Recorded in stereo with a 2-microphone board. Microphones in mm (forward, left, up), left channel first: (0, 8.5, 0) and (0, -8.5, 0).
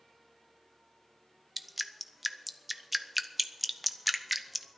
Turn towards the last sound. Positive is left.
turn(degrees=-10)  # may be behind; listen again after turning